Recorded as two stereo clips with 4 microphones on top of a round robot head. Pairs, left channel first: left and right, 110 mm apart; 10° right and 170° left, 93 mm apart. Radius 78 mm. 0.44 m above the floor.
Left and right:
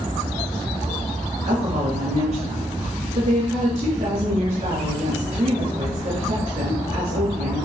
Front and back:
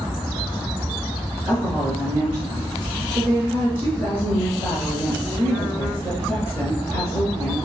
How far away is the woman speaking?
About 7.5 m.